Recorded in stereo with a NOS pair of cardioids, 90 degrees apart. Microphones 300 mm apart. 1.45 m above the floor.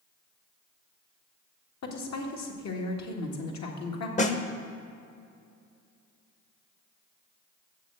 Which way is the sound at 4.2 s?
25° left.